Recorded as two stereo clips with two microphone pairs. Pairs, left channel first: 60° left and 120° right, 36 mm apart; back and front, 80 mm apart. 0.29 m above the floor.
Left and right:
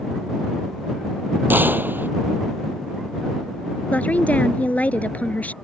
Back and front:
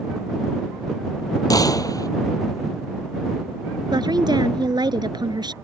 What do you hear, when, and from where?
1.5 s a gunshot: 140° right
3.9 s a woman speaking: 20° left